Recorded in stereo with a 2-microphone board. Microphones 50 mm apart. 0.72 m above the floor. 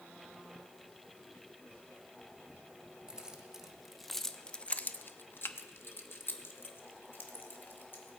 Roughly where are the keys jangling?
Centre.